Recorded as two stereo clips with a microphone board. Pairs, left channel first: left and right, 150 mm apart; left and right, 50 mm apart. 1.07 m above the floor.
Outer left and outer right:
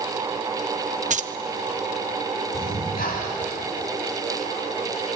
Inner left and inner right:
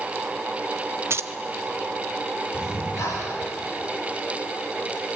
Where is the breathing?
85° left, 5 m.